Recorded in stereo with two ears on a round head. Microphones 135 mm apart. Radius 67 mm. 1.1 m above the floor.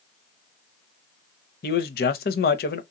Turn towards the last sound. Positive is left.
turn(degrees=70)  # may be behind; listen again after turning